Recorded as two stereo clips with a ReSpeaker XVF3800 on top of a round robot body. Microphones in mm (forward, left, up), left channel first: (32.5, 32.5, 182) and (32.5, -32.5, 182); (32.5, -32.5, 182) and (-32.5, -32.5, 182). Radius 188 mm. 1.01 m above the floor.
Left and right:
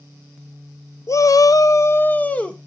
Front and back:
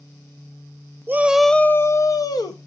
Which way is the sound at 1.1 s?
125° left.